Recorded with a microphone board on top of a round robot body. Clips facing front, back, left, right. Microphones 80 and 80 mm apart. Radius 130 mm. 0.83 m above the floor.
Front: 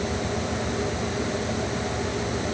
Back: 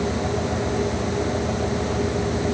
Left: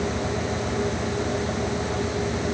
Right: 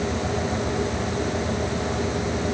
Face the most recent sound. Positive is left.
No sound to turn to.